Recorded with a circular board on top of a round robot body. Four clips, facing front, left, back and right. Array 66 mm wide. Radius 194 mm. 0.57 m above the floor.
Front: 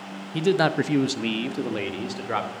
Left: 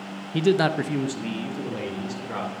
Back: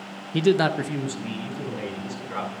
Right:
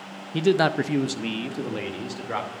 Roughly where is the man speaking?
Behind.